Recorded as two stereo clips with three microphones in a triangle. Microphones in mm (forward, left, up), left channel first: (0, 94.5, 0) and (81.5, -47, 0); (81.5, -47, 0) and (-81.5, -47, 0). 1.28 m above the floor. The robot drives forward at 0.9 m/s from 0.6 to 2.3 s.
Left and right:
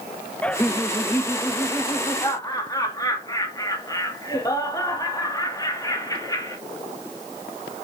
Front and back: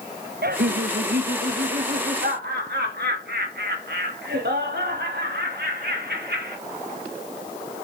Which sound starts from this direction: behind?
Laughter, at 0.4 s.